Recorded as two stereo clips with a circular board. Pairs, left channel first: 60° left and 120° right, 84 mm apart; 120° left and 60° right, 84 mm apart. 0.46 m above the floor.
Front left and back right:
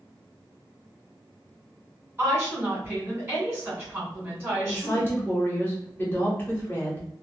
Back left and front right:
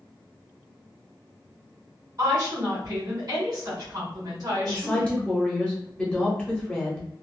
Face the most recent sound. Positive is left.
turn(degrees=60)